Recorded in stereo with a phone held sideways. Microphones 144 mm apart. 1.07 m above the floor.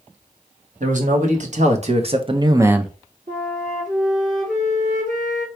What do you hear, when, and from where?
0.8 s a man speaking: 65° right (ahead or behind), 2 m; by 3.0 s 5° left (ahead or behind), 0.6 m
3.3 s a flute: 65° right (ahead or behind), 3 m